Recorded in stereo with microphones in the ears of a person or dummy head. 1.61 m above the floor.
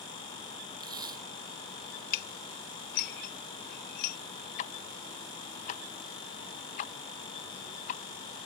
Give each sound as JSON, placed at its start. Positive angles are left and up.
{"t": 0.8, "sound": "tape being pulled", "side_deg": -20}
{"t": 2.1, "sound": "dishes clattering", "side_deg": 55}
{"t": 4.6, "sound": "ticking", "side_deg": 45}